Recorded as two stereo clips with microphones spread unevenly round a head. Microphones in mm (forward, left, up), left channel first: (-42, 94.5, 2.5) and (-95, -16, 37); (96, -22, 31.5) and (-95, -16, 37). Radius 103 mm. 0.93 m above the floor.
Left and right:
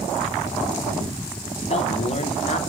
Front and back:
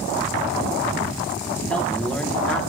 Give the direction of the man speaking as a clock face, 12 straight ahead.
9 o'clock.